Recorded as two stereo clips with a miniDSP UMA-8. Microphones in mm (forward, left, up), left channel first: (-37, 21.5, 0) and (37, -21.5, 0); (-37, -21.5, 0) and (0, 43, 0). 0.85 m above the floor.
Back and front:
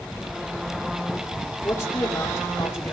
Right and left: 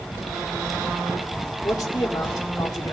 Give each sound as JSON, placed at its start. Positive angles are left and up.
{"t": 1.6, "sound": "a man speaking", "azimuth_deg": -150, "distance_m": 2.5}